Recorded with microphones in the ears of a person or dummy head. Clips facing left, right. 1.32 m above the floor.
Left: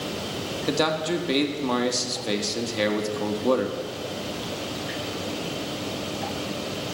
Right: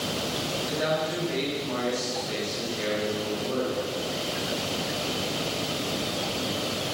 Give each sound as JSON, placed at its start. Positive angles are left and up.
{"t": 0.7, "sound": "a man speaking", "side_deg": 70, "distance_m": 2.0}